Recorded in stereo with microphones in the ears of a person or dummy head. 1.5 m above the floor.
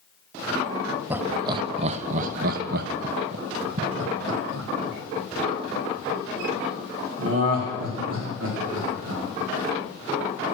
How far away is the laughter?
About 0.8 m.